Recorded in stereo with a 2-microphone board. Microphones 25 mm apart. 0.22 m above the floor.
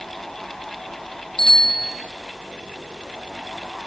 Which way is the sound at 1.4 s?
30° left (ahead or behind).